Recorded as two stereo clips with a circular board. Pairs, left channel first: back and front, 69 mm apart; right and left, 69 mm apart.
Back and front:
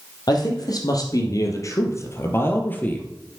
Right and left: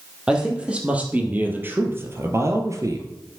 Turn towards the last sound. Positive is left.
turn(degrees=115)